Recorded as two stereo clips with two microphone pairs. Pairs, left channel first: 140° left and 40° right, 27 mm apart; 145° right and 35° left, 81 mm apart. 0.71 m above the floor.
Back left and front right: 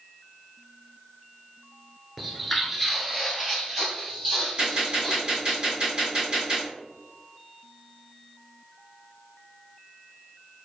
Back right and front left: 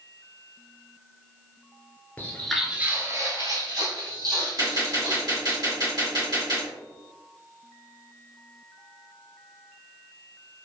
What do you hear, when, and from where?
2.2 s footsteps: 120° right, 0.7 m; by 5.6 s 55° left, 2.5 m
4.6 s a gunshot: 10° left, 1.8 m